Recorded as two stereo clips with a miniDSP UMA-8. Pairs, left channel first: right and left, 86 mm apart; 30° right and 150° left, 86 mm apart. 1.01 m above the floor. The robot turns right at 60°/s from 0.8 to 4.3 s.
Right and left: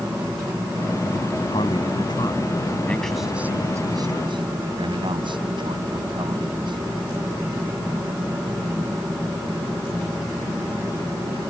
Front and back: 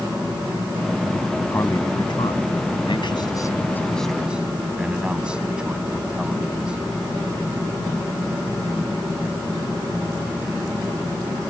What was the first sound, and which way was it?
A man speaking, 100° right.